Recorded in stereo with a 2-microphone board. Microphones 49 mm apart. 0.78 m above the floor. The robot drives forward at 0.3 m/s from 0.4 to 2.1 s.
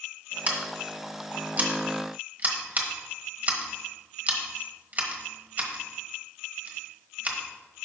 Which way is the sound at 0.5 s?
30° right (ahead or behind).